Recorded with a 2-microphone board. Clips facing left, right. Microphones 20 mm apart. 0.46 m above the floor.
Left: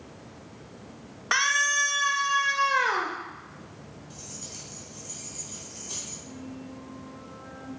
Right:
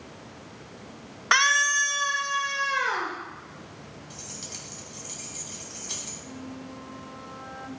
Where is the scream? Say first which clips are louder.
Right 3 dB; 25° right (ahead or behind), 0.8 m; by 3.1 s 50° left (ahead or behind), 1.5 m.